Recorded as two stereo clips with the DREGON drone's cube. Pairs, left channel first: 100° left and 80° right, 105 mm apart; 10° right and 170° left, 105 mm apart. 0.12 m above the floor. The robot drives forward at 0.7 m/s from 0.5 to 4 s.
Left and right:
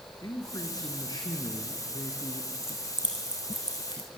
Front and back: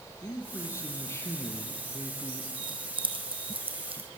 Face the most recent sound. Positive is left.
turn(degrees=140)